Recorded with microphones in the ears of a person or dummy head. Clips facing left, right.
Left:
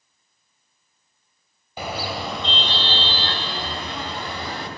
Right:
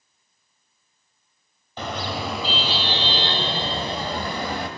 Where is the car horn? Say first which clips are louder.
Even; 5° left (ahead or behind), 3 m; by 4.7 s 50° right (ahead or behind), 3 m.